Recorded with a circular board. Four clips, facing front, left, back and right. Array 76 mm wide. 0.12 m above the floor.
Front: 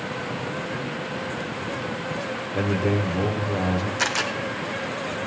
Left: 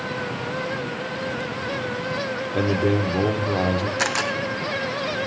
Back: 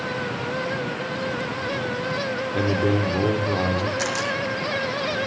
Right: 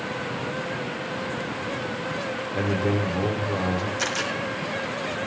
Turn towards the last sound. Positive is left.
turn(degrees=75)